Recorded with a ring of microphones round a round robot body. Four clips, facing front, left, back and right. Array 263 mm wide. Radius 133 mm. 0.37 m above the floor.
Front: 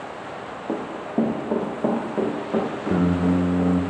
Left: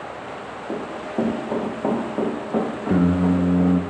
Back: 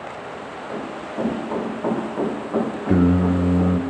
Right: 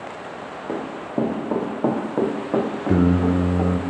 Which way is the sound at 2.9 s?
135° right.